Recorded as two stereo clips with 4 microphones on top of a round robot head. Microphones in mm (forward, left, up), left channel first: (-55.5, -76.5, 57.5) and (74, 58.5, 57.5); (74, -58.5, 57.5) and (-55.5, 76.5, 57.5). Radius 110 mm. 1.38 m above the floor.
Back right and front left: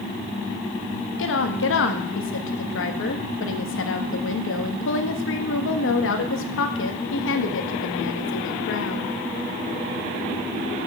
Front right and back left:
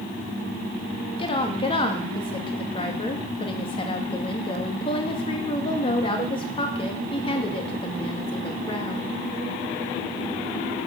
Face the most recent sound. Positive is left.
turn(degrees=-115)